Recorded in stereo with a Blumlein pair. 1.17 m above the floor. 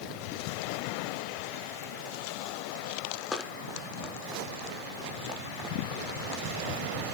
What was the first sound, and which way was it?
Running footsteps, 5° left.